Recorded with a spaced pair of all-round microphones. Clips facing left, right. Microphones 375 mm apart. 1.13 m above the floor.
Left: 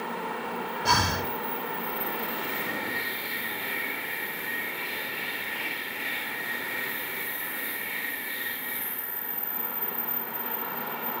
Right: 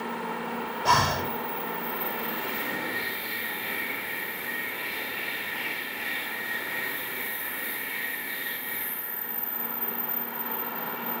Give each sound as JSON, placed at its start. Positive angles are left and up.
{"t": 0.8, "sound": "breathing", "side_deg": 35, "distance_m": 2.5}